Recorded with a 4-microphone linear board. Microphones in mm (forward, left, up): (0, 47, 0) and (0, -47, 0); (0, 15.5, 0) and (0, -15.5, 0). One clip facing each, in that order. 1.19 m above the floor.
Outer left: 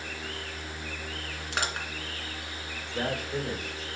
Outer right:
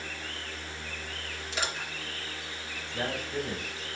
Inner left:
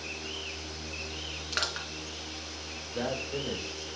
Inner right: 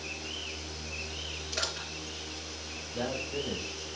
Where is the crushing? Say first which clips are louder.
Outer left 2 dB, inner left 3 dB; 55° left (ahead or behind), 2.5 m.